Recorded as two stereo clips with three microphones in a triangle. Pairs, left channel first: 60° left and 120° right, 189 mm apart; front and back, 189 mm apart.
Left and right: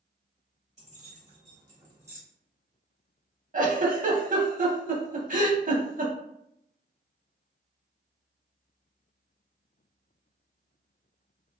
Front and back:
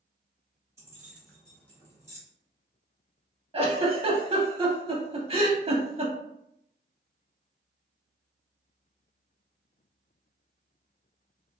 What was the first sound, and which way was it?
Keys jangling, 115° right.